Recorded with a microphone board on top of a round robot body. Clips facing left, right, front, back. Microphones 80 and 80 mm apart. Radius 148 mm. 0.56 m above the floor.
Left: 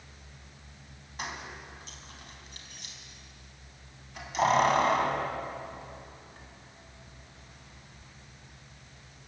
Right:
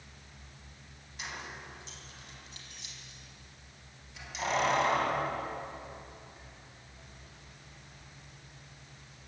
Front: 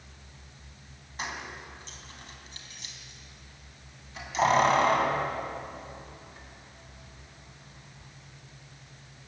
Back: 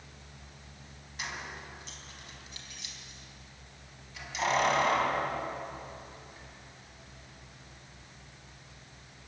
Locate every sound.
1.2 s keys jangling: 50° left, 4 m